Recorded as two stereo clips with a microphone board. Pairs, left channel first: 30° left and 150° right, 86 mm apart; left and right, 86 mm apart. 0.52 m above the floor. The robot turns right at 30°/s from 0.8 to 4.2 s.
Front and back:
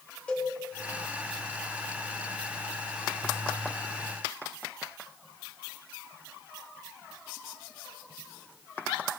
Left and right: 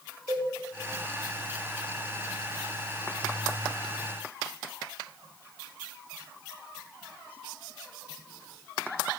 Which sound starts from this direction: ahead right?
A cowbell, at 0.3 s.